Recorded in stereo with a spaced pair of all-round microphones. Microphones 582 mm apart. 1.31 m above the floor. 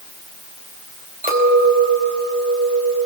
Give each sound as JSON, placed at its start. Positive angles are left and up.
{"t": 1.2, "sound": "a clink", "side_deg": -15, "distance_m": 4.5}